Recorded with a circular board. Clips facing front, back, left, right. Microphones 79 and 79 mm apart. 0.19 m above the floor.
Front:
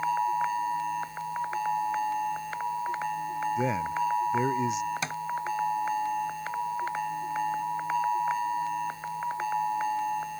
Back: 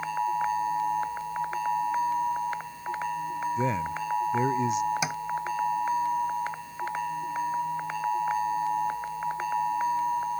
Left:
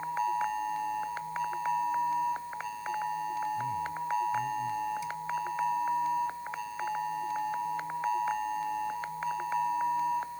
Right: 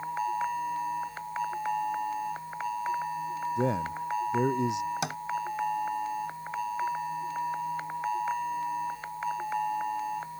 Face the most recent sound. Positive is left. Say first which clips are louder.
# back 3 dB, right 3 dB
turn(degrees=-100)